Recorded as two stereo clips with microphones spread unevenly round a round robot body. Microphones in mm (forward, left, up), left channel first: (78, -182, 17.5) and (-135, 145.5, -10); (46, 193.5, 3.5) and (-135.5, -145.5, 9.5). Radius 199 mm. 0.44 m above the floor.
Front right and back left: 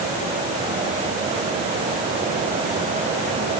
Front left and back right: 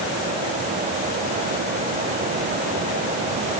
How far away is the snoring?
I don't hear snoring.